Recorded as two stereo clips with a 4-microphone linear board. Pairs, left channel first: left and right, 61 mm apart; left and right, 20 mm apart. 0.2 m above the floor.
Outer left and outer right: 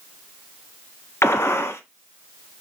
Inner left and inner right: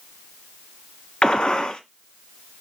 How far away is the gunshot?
About 0.6 m.